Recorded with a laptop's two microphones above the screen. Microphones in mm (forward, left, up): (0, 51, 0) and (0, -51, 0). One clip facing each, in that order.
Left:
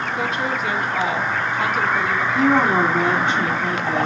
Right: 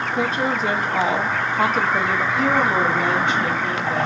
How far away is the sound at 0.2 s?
About 1.0 m.